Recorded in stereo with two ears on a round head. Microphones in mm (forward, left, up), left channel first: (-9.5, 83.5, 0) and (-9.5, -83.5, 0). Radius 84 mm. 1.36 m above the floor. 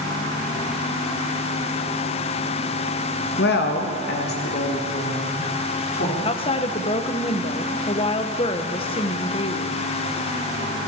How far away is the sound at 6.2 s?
About 0.9 m.